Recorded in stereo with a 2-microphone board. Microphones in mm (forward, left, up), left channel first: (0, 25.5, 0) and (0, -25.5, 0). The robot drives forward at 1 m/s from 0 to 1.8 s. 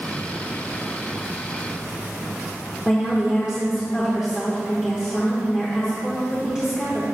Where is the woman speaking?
15° right (ahead or behind), 1.2 m.